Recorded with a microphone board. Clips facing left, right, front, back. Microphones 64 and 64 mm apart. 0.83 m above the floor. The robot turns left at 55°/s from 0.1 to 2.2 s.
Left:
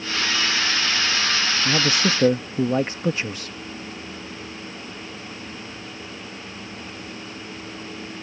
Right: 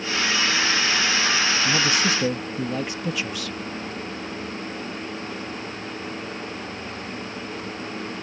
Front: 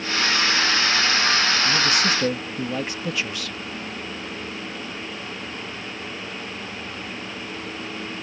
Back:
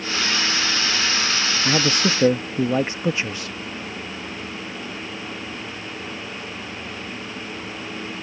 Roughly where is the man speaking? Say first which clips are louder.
Left 1 dB, back 1 dB; behind.